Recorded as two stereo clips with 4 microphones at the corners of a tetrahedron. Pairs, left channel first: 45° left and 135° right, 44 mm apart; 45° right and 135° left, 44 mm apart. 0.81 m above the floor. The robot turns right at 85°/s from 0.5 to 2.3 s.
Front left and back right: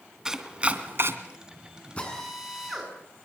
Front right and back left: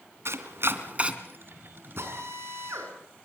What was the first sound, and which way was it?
Chopping, 150° left.